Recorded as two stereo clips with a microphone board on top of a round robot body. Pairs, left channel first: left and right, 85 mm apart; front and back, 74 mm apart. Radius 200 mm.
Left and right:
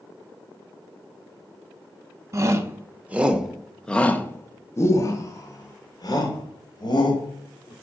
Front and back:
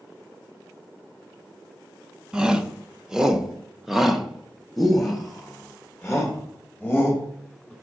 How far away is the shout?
About 1.3 m.